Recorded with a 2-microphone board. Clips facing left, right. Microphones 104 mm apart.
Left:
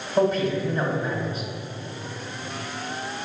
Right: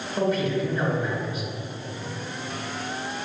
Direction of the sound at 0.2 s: 35° left (ahead or behind).